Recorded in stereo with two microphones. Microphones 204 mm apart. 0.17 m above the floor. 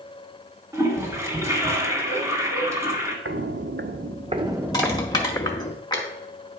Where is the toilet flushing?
15° right (ahead or behind), 1.4 m.